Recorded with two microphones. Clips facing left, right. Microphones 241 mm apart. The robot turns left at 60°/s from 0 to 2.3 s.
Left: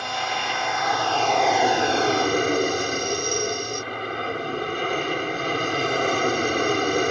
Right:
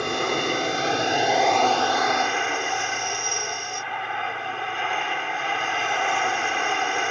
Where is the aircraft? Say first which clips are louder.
Right 7 dB; 90° right; by 7.1 s 130° left.